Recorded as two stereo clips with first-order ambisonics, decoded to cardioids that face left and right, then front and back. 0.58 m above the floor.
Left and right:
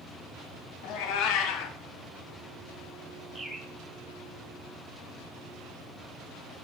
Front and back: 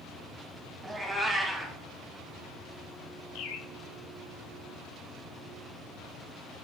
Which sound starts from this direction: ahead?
A bird, at 3.4 s.